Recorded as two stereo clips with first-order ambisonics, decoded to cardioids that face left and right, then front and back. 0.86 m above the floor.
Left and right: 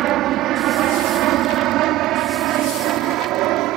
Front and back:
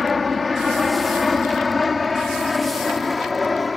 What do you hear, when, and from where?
0.0 s an aircraft: 70° right; by 3.8 s 75° right